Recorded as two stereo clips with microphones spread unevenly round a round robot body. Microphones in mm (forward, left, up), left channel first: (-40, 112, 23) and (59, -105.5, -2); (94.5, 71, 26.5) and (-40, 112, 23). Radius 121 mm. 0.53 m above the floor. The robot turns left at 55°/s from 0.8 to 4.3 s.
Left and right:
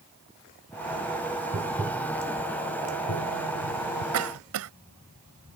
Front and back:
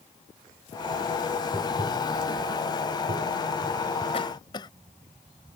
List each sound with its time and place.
1.5 s tapping: 120° right; by 4.0 s 100° left
4.1 s a cough: 75° right; by 4.7 s 85° right